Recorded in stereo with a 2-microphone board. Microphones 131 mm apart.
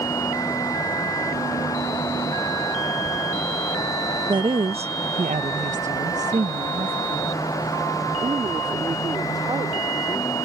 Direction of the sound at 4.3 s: 35° right (ahead or behind).